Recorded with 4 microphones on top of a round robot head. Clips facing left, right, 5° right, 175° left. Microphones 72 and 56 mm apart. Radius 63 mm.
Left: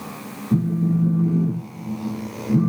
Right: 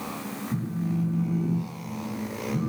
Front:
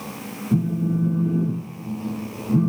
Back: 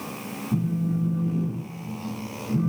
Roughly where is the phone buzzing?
Ahead left.